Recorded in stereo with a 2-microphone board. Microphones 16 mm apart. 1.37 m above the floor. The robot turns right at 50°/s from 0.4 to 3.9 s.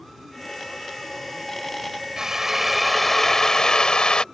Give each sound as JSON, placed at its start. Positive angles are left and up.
{"t": 2.2, "sound": "a drill", "azimuth_deg": -35}